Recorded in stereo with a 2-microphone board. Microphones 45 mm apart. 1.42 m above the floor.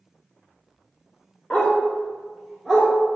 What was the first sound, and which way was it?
A dog barking, 25° left (ahead or behind).